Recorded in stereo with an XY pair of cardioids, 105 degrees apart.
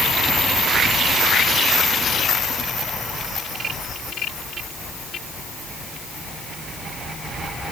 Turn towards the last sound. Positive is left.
No sound to turn to.